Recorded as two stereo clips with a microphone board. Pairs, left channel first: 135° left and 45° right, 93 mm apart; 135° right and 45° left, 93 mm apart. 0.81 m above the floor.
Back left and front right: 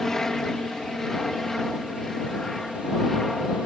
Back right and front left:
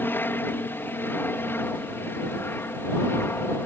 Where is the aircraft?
145° right; by 3.7 s 140° right.